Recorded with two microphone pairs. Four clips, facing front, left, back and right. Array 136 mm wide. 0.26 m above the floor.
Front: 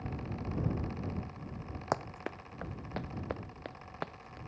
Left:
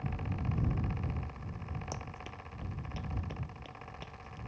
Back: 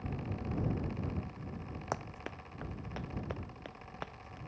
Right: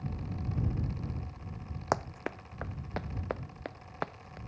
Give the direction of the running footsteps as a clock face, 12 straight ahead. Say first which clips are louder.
Right 11 dB, front 5 dB; 2 o'clock.